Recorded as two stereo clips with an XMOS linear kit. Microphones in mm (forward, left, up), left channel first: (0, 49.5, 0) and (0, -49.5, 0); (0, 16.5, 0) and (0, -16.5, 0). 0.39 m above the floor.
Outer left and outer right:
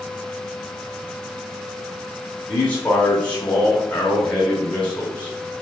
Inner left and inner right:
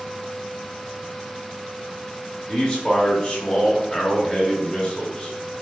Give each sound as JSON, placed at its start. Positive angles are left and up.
{"t": 2.5, "sound": "a man speaking", "side_deg": 15, "distance_m": 0.9}